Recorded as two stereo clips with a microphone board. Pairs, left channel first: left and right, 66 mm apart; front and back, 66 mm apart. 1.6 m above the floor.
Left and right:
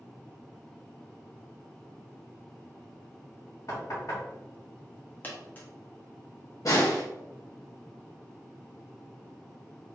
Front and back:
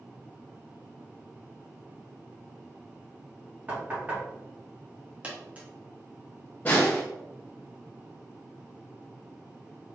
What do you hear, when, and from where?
3.7 s knocking: 120° left, 1.7 m
5.2 s a dropped coin: 130° left, 1.1 m
6.7 s a snare drum: 60° left, 1.6 m